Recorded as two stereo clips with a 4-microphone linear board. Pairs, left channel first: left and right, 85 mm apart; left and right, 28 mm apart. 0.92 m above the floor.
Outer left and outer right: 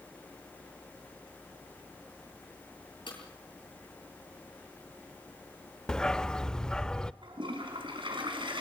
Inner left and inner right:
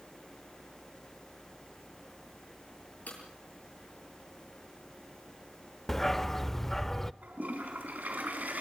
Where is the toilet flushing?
85° right, 5 m.